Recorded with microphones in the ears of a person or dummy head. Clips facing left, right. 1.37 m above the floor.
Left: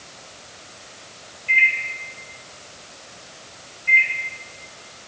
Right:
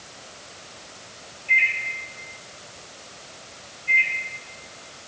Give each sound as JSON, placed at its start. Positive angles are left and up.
{"t": 1.5, "sound": "a microwave", "side_deg": 25, "distance_m": 1.2}
{"t": 3.9, "sound": "a microwave", "side_deg": 65, "distance_m": 1.0}